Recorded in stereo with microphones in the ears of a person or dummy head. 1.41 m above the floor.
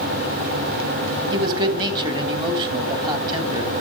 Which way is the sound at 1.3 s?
15° right (ahead or behind).